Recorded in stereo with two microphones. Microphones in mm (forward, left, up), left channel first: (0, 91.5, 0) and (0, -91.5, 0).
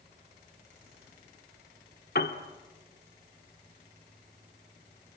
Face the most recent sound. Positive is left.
turn(degrees=65)  # may be behind; listen again after turning